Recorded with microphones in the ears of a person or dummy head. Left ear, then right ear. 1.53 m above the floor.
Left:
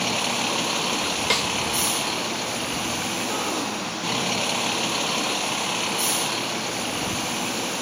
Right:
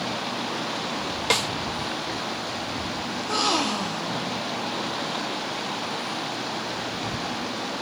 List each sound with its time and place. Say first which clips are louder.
0.0 s a vehicle: left 5 dB; 85° left
1.3 s a snare drum: right 1 dB; centre (ahead or behind)
3.1 s a gasp: right 2 dB; 75° right (ahead or behind)